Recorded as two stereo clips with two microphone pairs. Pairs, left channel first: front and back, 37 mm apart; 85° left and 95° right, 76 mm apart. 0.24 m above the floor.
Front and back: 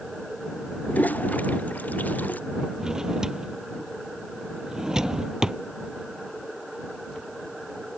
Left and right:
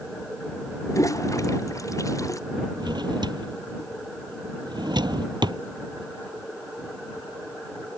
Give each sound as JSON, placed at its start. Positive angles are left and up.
{"t": 0.9, "sound": "a toilet flushing", "azimuth_deg": 40}
{"t": 2.8, "sound": "a drawer", "azimuth_deg": -105}